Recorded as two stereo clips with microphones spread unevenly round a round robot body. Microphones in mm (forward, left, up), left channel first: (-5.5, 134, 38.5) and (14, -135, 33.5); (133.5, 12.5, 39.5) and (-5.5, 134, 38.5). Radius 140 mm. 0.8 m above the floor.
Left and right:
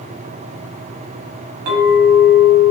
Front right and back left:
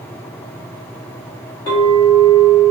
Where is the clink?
115° right, 1.0 m.